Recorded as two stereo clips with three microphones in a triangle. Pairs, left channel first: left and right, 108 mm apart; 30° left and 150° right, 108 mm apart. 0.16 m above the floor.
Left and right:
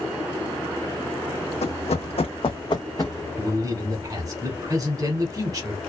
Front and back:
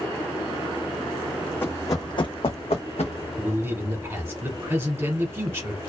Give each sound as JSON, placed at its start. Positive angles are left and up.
{"t": 1.6, "sound": "running footsteps", "azimuth_deg": 100, "distance_m": 0.6}
{"t": 3.4, "sound": "a man speaking", "azimuth_deg": -100, "distance_m": 1.2}